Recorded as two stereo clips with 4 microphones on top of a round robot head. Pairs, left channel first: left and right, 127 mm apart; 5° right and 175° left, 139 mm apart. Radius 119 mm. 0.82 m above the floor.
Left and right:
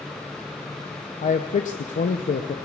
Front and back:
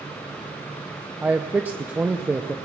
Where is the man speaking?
95° left, 0.6 m.